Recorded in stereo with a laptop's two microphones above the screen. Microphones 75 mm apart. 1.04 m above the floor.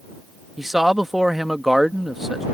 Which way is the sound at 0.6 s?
5° right (ahead or behind).